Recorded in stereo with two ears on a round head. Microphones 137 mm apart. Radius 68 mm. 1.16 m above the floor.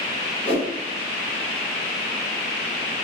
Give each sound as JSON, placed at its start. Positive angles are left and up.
{"t": 0.5, "sound": "a whoosh", "side_deg": 40, "distance_m": 1.0}